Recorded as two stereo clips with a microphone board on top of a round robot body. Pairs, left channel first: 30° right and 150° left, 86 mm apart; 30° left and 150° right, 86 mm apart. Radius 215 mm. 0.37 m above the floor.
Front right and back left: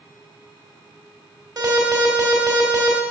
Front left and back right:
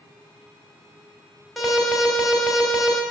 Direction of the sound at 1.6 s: 120° left.